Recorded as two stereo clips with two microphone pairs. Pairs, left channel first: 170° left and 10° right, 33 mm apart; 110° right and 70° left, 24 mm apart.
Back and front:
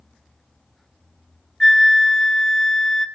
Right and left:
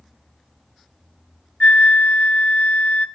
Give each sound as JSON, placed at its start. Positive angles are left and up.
{"t": 1.6, "sound": "a flute", "azimuth_deg": -110, "distance_m": 0.6}